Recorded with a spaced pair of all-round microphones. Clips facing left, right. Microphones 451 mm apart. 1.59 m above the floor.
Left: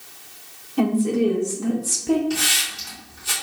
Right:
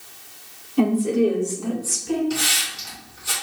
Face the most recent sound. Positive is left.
turn(degrees=10)  # may be behind; listen again after turning